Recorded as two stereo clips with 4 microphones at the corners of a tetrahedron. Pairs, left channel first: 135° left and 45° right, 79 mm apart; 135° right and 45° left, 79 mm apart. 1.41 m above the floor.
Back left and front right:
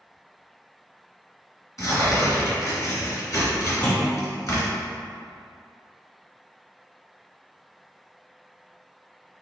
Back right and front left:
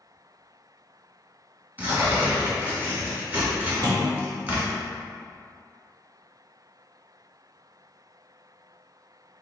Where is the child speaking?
No child speaking in this recording.